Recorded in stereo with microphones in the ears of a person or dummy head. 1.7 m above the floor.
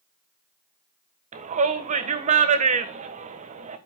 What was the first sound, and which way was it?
A shout, 45° right (ahead or behind).